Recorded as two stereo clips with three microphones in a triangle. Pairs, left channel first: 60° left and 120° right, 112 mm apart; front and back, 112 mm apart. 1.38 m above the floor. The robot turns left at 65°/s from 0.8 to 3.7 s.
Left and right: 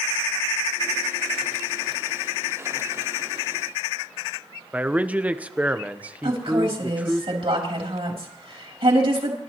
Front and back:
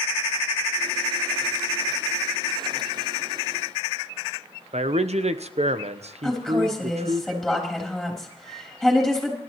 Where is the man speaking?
165° left, 0.8 m.